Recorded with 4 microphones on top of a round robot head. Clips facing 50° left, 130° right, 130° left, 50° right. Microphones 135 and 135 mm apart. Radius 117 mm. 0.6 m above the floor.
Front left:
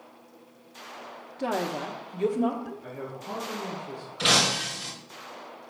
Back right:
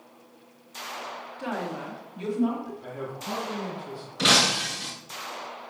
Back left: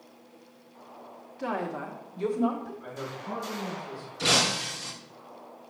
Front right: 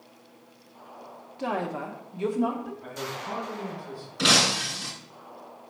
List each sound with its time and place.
1.4 s a woman speaking: 5° left, 1.2 m; by 2.7 s 40° left, 1.5 m
2.8 s a man speaking: 125° right, 5 m
4.2 s breaking glass: 75° right, 4 m